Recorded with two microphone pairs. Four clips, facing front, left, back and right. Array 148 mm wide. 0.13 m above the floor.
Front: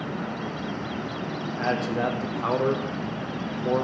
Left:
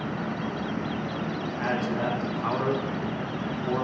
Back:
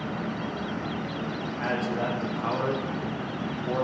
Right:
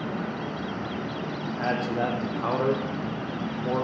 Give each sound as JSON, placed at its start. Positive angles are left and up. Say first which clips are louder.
{"t": 1.6, "sound": "a man speaking", "louder": "right 2 dB, front 3 dB", "azimuth_deg": -40, "distance_m": 5.0}